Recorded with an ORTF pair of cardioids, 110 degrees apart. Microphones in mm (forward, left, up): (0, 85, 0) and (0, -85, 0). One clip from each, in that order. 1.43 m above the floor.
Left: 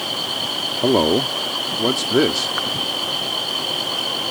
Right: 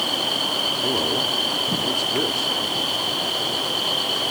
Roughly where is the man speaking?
Ahead left.